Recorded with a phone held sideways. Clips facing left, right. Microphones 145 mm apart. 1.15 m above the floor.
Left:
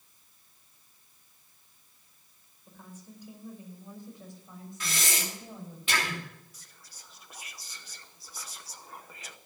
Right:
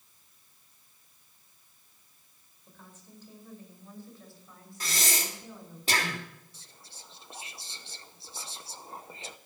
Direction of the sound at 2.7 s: 10° left (ahead or behind).